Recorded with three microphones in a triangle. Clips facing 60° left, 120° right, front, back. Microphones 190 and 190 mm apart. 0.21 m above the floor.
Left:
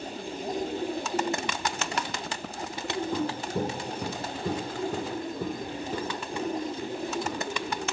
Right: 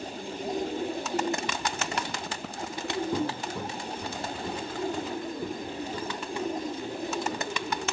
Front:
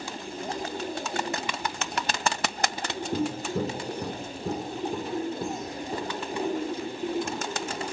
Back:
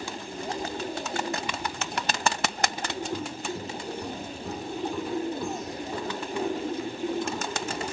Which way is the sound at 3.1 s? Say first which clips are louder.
Left 1 dB, front 5 dB; 45° right.